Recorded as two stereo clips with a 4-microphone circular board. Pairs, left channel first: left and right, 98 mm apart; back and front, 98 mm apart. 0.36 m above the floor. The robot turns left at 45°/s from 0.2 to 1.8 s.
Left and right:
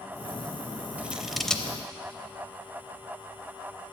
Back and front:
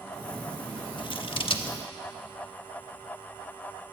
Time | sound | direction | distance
1.0 | scissors | 160° right | 0.6 m